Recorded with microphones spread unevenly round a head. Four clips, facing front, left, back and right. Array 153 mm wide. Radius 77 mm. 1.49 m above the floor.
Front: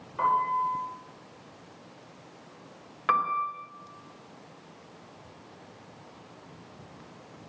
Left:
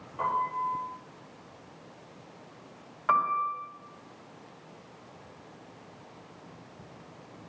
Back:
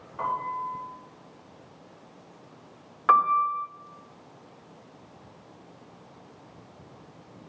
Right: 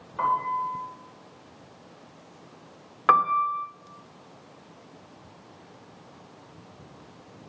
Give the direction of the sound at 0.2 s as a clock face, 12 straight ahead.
1 o'clock.